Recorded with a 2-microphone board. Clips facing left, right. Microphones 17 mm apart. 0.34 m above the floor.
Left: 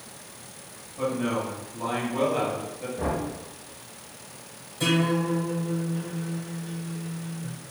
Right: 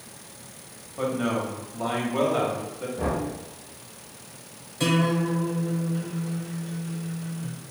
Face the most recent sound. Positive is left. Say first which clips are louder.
# right 1 dB
turn(degrees=-25)  # may be behind; listen again after turning